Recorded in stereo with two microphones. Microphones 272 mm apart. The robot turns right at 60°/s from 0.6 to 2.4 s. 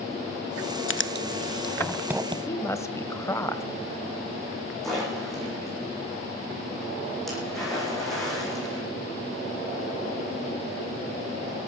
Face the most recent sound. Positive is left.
turn(degrees=0)  # may be behind; listen again after turning